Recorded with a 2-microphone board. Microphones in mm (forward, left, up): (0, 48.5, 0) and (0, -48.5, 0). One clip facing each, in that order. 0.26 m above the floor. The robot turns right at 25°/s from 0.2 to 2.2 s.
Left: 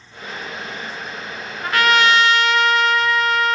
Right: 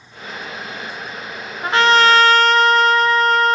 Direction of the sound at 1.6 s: 25° right (ahead or behind).